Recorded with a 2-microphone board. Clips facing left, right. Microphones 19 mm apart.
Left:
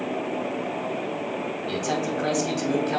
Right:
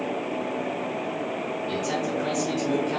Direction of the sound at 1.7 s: 30° left (ahead or behind).